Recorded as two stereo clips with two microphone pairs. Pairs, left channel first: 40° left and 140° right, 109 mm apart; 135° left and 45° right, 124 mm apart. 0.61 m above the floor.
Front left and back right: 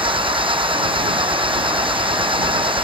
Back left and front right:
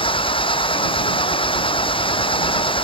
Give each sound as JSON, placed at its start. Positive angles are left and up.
{"t": 0.0, "sound": "an engine running", "azimuth_deg": 180}